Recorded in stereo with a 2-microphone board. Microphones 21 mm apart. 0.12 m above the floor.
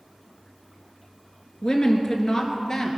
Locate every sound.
1.6 s a woman speaking: 35° left (ahead or behind), 2.0 m; by 3.0 s 25° left (ahead or behind), 2.5 m